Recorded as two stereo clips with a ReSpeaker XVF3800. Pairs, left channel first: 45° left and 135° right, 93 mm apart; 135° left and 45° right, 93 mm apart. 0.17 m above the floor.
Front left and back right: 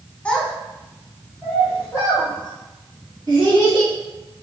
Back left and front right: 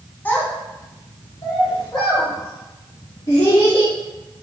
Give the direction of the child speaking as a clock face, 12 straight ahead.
9 o'clock.